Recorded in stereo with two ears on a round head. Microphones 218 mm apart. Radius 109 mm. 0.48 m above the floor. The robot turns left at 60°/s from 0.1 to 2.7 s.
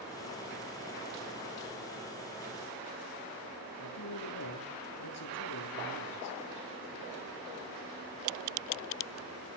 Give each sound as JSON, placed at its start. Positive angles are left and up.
{"t": 3.8, "sound": "a man speaking", "side_deg": 70, "distance_m": 7.5}